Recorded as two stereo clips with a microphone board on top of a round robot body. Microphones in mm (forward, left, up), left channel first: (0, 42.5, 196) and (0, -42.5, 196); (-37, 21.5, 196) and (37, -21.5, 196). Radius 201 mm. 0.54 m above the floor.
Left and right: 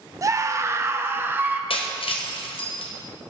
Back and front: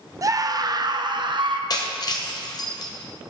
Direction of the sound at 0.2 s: 60° right.